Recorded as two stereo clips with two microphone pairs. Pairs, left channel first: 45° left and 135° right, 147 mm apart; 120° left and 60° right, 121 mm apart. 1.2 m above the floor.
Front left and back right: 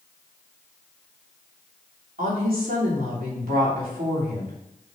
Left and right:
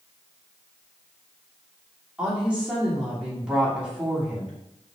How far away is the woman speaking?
About 3 m.